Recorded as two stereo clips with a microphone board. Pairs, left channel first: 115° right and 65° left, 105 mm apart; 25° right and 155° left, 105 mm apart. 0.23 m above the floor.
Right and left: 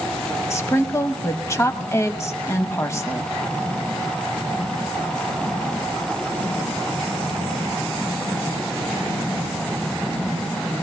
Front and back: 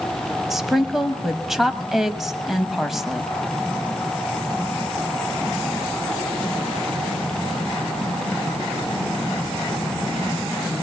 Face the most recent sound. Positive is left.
turn(degrees=-115)